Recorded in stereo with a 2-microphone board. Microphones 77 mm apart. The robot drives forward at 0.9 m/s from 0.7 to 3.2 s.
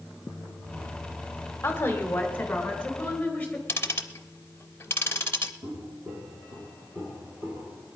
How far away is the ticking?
About 0.7 m.